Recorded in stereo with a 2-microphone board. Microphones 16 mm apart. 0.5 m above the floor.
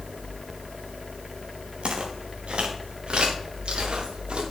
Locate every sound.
1.8 s footsteps: 80° right, 3 m; by 4.4 s 65° right (ahead or behind), 4.5 m